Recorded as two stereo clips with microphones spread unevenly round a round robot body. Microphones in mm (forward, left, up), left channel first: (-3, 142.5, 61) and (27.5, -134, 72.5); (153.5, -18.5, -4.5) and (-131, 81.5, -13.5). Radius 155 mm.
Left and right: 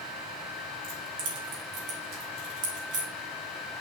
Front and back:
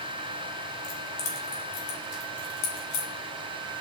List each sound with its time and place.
0.8 s keys jangling: 55° right, 2 m; by 3.1 s 35° right, 3 m